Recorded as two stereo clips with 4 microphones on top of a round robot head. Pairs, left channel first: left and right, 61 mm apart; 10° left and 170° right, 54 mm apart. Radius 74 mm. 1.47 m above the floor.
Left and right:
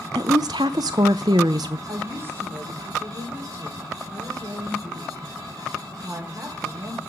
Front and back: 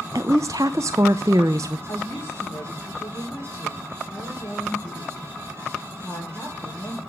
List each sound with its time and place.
0.1 s a woman speaking: 120° right, 0.5 m
1.9 s a woman speaking: 40° right, 4 m